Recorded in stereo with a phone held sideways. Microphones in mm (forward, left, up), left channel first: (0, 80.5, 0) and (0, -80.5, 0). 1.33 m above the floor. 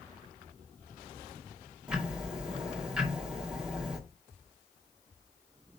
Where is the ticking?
5° right (ahead or behind), 2 m.